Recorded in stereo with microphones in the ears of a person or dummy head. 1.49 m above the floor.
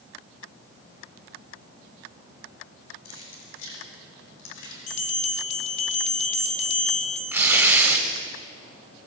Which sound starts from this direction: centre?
Tearing paper, at 7.3 s.